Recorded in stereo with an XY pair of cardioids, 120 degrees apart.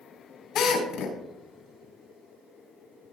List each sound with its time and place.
0.6 s a drill: 70° left, 3.5 m